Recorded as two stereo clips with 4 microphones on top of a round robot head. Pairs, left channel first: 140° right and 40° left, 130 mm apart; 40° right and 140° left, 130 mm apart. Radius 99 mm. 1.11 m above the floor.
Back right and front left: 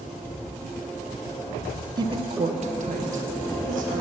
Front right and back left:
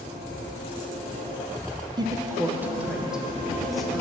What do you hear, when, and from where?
2.0 s a woman speaking: 90° left, 0.6 m; by 4.0 s 50° left, 1.6 m